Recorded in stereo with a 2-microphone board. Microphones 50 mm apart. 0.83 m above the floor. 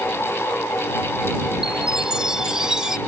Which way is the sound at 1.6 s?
15° right (ahead or behind).